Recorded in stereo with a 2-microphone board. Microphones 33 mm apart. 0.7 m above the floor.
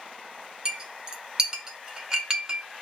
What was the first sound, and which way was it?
A clink, 25° right (ahead or behind).